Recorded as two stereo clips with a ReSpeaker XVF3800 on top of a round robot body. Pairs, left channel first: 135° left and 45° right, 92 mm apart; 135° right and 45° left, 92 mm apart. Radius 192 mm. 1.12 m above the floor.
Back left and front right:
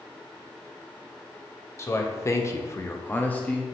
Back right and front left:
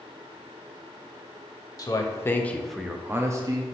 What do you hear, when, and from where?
1.8 s a man speaking: 175° right, 1.0 m; by 3.7 s 55° left, 0.9 m